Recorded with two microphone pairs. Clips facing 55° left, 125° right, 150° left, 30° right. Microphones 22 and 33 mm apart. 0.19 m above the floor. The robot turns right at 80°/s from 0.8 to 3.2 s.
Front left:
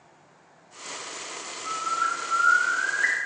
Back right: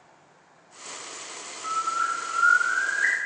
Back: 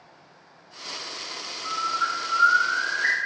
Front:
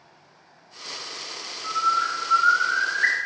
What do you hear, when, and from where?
1.6 s a bird: 135° right, 0.7 m; by 3.1 s 10° right, 0.7 m